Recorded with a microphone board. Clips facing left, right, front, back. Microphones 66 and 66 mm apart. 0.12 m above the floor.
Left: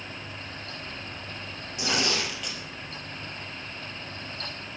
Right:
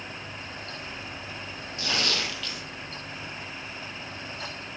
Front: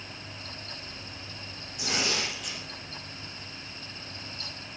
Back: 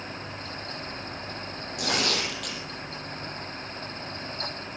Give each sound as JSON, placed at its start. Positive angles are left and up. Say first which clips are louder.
{"t": 1.8, "sound": "tearing paper", "louder": "left 2 dB, back 3 dB", "azimuth_deg": 160, "distance_m": 5.0}